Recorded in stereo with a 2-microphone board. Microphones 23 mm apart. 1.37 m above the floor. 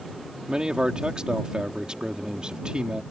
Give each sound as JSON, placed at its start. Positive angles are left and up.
{"t": 0.5, "sound": "a man speaking", "side_deg": -45}